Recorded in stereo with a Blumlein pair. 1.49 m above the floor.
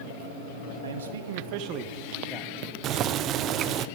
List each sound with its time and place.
0.8 s a man speaking: 70° right, 1.8 m; by 2.7 s 10° left, 1.5 m
2.8 s boiling: 30° right, 0.6 m